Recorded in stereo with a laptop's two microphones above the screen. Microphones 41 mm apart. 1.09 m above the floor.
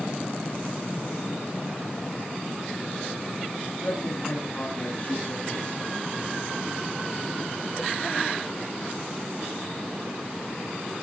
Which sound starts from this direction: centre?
A man speaking, at 3.8 s.